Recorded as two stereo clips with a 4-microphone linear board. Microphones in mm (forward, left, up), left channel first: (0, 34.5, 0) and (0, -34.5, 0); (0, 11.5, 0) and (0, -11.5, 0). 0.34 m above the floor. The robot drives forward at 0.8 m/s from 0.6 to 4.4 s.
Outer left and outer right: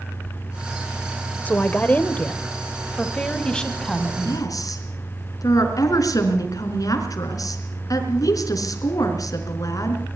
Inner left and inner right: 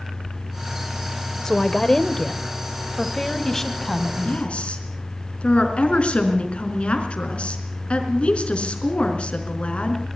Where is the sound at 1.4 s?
25° left (ahead or behind), 1.1 m; by 4.4 s 10° left (ahead or behind), 2.5 m.